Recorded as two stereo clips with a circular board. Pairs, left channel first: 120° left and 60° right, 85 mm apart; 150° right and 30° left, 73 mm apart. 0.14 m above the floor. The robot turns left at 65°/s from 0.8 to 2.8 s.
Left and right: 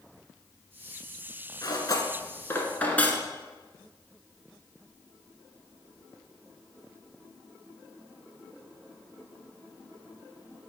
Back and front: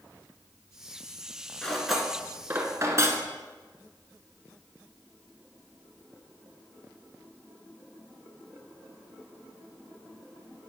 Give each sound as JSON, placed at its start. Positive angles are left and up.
{"t": 1.6, "sound": "cutlery clinking", "azimuth_deg": 135, "distance_m": 1.1}